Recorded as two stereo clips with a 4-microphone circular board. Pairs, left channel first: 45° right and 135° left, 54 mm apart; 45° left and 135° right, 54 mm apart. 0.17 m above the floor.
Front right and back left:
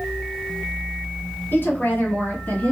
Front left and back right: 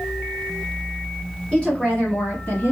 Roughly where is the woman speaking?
Ahead.